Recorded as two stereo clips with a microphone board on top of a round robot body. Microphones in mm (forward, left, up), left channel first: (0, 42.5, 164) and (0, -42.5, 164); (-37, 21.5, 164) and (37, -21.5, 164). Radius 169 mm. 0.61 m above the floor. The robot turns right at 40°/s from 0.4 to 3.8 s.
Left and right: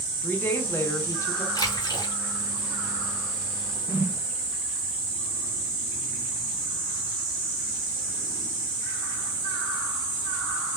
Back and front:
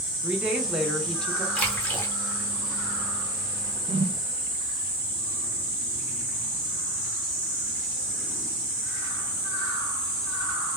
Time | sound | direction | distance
0.2 | a woman speaking | 40° left | 1.0 m
1.6 | a splash | 80° left | 1.3 m
3.9 | a whoosh | 20° right | 0.5 m